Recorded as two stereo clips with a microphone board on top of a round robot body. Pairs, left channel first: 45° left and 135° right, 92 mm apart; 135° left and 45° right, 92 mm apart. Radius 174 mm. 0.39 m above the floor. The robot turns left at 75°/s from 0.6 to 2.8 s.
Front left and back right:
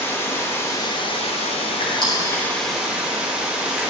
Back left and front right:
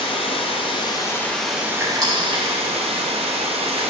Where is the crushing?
25° left, 2.5 m; by 3.9 s 50° right, 2.5 m.